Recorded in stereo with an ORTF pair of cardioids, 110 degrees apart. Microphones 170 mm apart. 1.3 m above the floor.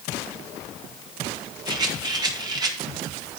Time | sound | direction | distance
1.7 | a rattle | 25° right | 1.8 m